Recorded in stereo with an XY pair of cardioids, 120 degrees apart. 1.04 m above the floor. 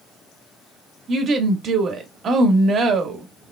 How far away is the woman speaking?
About 1.4 m.